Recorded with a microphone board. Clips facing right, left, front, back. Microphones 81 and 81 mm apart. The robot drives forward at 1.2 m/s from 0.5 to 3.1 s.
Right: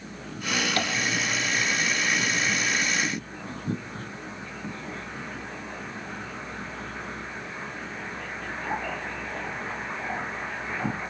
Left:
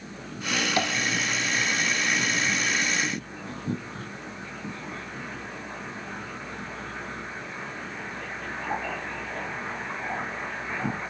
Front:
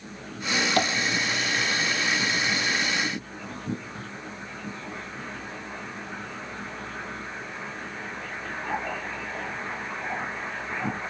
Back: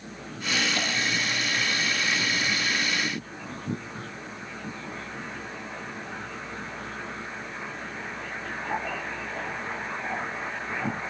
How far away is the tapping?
About 1.3 m.